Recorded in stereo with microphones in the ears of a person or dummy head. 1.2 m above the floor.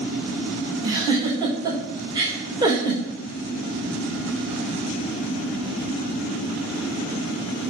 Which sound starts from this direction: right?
A giggle, at 0.8 s.